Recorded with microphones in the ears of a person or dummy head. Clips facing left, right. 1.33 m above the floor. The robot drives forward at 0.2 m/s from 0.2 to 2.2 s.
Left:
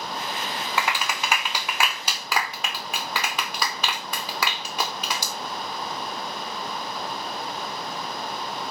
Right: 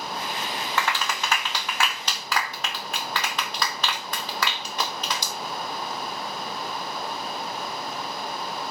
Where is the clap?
15° left (ahead or behind), 0.9 m; by 5.3 s 10° left (ahead or behind), 1.2 m.